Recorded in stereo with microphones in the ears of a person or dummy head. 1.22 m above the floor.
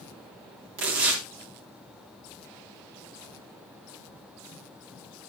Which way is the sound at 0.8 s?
65° right (ahead or behind).